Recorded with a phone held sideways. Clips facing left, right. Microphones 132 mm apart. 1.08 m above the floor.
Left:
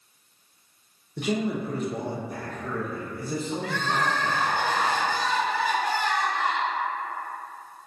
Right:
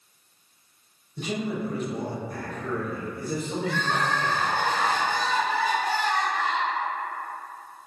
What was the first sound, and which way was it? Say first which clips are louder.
A man speaking: left 3 dB; 70° left (ahead or behind).